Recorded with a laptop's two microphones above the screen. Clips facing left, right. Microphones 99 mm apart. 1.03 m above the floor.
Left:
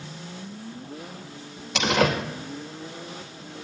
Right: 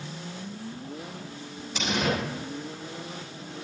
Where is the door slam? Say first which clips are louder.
Left 5 dB; 85° left, 3 m.